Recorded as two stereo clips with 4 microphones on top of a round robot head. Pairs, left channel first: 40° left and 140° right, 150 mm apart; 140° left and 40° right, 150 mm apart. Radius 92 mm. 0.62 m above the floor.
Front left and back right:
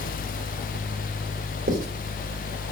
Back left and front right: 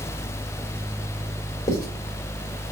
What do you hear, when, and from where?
1.7 s writing: 150° right, 1.9 m